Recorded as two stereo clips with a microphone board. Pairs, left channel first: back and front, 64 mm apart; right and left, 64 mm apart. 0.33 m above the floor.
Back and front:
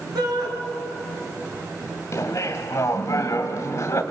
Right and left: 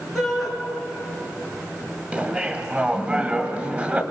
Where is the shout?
Straight ahead, 5 m.